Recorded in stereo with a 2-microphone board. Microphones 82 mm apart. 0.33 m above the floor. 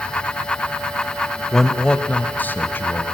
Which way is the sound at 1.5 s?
5° left (ahead or behind).